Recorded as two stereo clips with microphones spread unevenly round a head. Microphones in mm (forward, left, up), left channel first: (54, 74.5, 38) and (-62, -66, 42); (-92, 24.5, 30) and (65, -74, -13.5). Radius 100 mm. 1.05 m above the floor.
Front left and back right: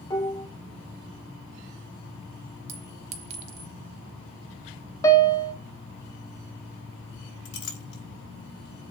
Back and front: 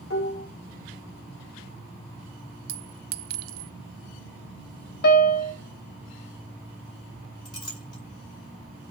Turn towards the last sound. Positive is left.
turn(degrees=75)